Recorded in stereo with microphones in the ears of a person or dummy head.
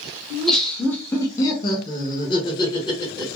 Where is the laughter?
Centre (ahead or behind), 0.9 m; by 3.4 s 20° left (ahead or behind), 1.2 m.